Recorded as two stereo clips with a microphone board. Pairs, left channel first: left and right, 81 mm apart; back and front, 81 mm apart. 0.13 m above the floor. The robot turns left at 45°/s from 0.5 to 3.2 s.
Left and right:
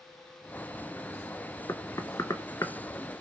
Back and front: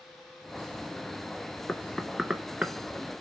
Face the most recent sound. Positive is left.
turn(degrees=40)